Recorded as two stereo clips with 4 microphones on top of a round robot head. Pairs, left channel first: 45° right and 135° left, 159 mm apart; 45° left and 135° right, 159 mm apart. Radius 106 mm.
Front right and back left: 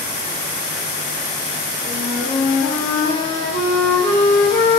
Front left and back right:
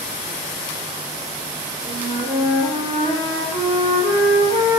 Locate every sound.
1.8 s a flute: 75° right, 1.6 m